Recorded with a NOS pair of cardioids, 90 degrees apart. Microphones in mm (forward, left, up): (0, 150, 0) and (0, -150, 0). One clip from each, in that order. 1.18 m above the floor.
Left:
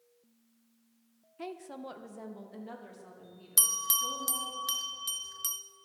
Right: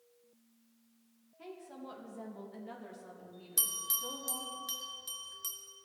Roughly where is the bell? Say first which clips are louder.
Left 7 dB; ahead left.